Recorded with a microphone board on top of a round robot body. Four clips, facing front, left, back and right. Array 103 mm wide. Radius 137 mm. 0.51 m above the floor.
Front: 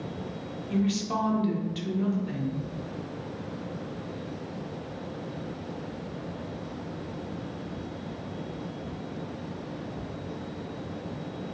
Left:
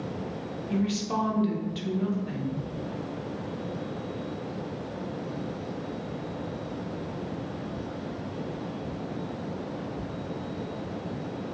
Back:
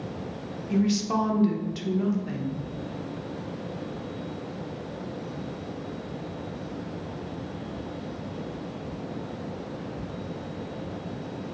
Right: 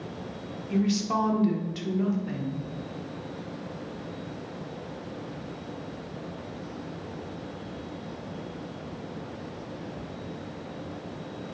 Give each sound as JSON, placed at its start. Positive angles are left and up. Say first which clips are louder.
{"t": 0.7, "sound": "a woman speaking", "louder": "right 2 dB, back 3 dB", "azimuth_deg": -145, "distance_m": 0.7}